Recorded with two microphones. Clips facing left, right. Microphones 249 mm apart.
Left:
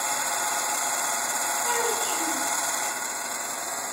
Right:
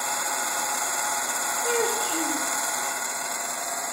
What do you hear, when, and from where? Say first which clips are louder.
1.6 s a child speaking: right 4 dB; 60° right (ahead or behind), 2.5 m